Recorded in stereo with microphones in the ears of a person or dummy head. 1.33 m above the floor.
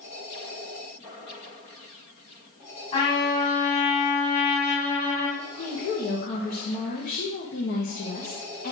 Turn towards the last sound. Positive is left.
turn(degrees=40)  # may be behind; listen again after turning